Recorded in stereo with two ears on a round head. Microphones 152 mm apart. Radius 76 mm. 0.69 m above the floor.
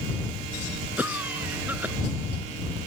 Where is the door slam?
No door slam in this recording.